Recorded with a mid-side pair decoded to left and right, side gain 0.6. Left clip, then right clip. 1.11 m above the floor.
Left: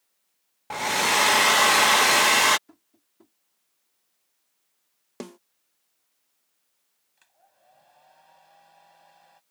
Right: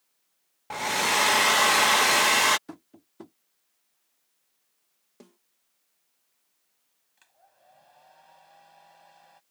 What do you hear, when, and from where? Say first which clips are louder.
0.7 s a hair dryer: left 2 dB; 10° left
2.7 s tapping: right 13 dB; 60° right
5.2 s a snare drum: left 15 dB; 65° left
7.2 s a hair dryer: right 1 dB; 5° right